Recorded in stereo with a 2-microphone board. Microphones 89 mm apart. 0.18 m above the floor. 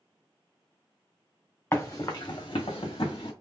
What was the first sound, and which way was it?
Running footsteps, 30° left (ahead or behind).